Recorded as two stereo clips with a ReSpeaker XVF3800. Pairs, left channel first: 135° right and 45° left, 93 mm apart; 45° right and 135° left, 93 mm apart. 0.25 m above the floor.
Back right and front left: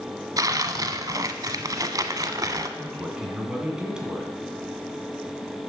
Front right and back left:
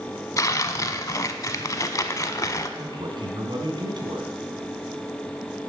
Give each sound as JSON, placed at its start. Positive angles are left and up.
{"t": 0.4, "sound": "tearing paper", "azimuth_deg": 0, "distance_m": 0.7}
{"t": 2.8, "sound": "a man speaking", "azimuth_deg": 125, "distance_m": 2.0}